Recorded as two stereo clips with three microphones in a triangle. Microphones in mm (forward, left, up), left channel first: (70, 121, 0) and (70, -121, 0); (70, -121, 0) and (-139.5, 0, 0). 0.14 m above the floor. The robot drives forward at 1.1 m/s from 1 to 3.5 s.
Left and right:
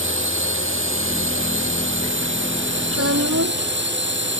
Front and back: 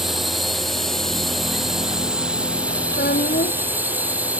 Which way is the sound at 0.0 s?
120° right.